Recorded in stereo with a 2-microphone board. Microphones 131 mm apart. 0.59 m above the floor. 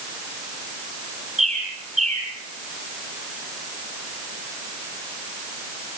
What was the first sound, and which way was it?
A bird, 60° right (ahead or behind).